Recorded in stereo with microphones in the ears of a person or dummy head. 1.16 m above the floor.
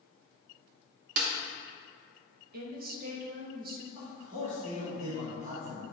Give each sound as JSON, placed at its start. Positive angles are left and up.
{"t": 1.2, "sound": "a snare drum", "side_deg": -55, "distance_m": 1.1}
{"t": 2.5, "sound": "a woman speaking", "side_deg": -55, "distance_m": 1.0}
{"t": 4.0, "sound": "a man speaking", "side_deg": -25, "distance_m": 2.5}